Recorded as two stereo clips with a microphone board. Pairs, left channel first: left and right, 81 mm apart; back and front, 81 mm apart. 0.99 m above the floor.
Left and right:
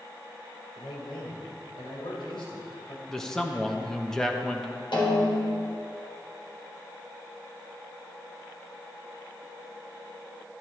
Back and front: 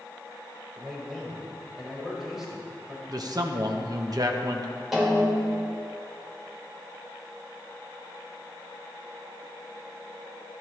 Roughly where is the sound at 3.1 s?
Ahead.